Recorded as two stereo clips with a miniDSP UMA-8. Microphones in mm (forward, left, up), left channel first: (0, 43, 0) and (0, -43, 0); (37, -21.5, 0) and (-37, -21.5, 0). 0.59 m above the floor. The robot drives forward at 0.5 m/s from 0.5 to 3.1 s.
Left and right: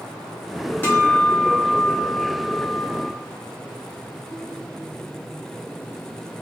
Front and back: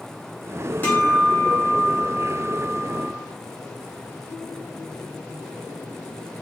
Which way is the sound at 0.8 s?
45° left.